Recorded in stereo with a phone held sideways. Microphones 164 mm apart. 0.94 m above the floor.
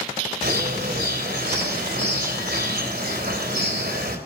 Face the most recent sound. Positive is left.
turn(degrees=-70)  # may be behind; listen again after turning